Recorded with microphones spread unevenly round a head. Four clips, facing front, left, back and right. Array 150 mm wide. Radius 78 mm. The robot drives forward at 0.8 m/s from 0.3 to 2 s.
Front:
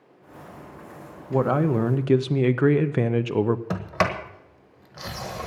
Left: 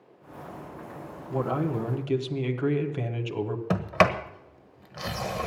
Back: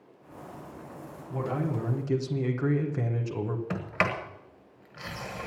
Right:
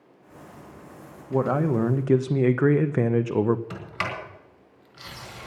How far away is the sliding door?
About 1.3 m.